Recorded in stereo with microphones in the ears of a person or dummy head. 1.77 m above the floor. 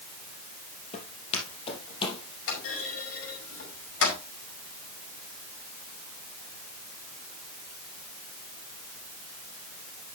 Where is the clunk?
75° left (ahead or behind), 5 m.